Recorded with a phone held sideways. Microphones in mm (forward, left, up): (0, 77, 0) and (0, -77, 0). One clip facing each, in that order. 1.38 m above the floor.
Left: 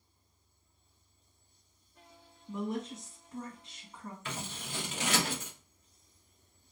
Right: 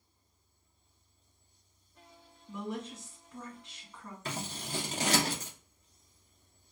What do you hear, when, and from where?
2.5 s a woman speaking: 30° left (ahead or behind), 1.5 m
4.2 s scissors: 35° right (ahead or behind), 0.8 m